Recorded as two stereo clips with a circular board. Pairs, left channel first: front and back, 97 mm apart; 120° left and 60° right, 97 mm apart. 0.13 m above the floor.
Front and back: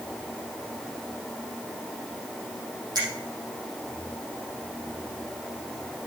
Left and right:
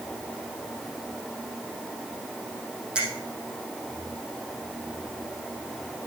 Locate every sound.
3.0 s a finger snap: 140° right, 4.5 m